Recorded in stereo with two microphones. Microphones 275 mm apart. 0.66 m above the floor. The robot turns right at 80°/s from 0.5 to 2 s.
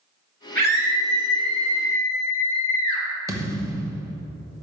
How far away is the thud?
About 1.1 m.